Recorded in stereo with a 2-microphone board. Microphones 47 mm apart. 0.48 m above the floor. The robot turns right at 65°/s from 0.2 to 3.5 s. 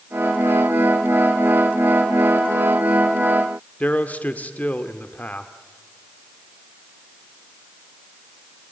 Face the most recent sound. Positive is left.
turn(degrees=35)  # may be behind; listen again after turning